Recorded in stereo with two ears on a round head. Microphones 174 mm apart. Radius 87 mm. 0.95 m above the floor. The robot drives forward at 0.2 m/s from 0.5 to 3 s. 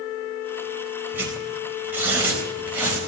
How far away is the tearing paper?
About 4 m.